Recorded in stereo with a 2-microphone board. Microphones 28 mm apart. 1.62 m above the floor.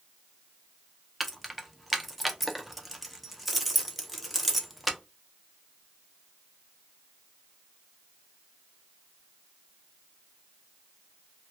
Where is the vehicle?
No vehicle in this recording.